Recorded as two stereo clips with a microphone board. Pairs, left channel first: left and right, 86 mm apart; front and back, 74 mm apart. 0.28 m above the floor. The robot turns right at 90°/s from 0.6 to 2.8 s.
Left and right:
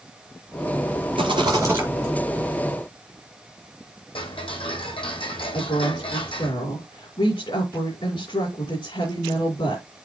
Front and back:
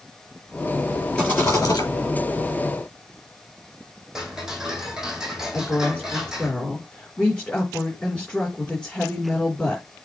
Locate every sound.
1.2 s a rattle: 80° right, 4 m; by 1.9 s 15° right, 4 m
4.2 s ticking: 100° left, 2 m
5.5 s a woman speaking: 75° left, 4 m